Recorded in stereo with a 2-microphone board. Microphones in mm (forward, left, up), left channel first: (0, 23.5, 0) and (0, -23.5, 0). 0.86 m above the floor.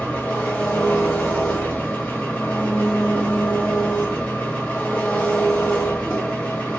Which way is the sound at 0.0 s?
30° left (ahead or behind).